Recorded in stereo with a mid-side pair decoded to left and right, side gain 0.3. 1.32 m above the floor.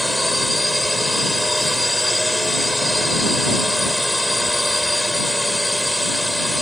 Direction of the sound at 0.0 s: 5° left.